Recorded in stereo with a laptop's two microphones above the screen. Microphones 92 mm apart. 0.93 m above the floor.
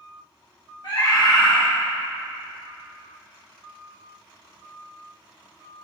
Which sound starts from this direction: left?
A scream, at 0.8 s.